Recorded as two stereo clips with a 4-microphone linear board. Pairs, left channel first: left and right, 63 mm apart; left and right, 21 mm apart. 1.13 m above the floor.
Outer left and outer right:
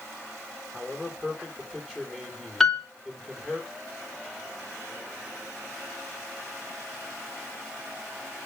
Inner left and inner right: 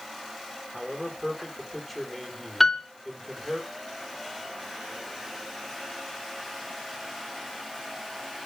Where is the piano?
5° left (ahead or behind), 2 m.